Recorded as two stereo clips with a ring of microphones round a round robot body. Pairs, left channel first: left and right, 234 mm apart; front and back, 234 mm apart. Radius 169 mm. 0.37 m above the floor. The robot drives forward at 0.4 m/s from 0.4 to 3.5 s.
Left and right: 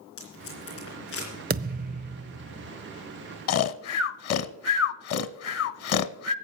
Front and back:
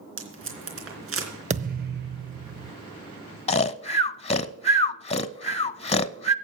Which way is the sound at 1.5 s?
125° right.